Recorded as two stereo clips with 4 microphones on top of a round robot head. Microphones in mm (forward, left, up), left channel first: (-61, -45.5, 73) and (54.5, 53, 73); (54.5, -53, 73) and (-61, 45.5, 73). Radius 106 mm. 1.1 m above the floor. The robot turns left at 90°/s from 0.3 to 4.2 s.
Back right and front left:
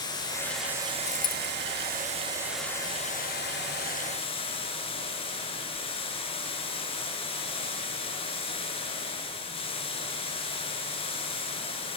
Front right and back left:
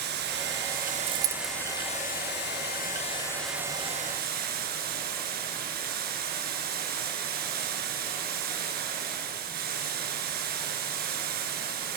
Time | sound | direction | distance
0.0 | running water | 155° left | 7 m
1.1 | a dropped coin | straight behind | 1.0 m